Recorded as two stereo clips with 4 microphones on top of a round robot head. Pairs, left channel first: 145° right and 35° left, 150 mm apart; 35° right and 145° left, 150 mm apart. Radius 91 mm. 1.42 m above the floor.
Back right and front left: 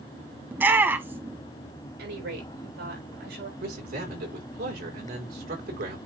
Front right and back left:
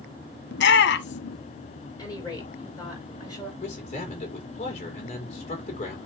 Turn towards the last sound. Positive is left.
turn(degrees=15)